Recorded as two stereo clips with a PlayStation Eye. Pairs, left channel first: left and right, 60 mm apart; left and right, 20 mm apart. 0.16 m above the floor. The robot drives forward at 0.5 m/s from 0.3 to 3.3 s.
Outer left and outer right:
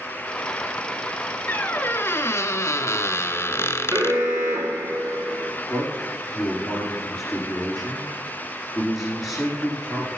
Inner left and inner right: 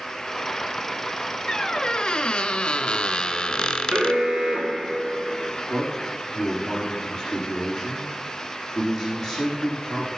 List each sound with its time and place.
1.5 s a squeak: 30° left (ahead or behind), 0.8 m; by 4.2 s 45° left (ahead or behind), 0.6 m
3.9 s an alarm: 70° right (ahead or behind), 2.5 m
5.7 s a man speaking: 5° left (ahead or behind), 6 m